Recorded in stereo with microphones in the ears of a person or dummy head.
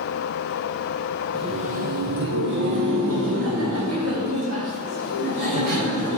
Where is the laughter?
25° right (ahead or behind), 0.5 m; by 6.2 s 85° right, 3 m.